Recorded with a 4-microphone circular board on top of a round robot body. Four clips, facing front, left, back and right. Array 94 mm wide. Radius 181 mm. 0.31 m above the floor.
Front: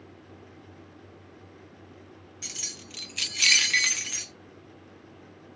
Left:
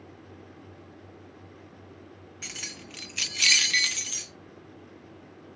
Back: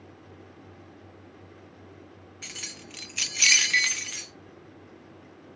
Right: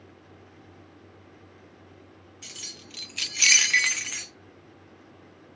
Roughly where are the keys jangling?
Left.